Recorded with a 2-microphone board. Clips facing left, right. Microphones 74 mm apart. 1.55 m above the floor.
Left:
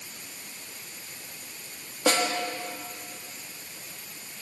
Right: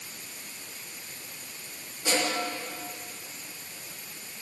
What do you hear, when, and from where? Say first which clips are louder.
2.1 s a snare drum: left 4 dB; 80° left, 3 m